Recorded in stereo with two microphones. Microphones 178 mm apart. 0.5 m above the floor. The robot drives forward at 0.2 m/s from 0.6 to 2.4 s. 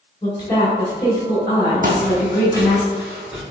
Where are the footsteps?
50° right (ahead or behind), 1.0 m; by 3.4 s 5° right (ahead or behind), 2.5 m.